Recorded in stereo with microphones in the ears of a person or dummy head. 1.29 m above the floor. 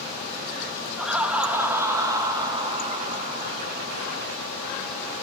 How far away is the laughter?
About 2.5 m.